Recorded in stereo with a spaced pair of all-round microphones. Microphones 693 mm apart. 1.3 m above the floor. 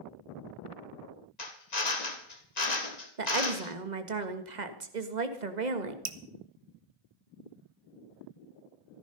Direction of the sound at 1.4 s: 65° left (ahead or behind).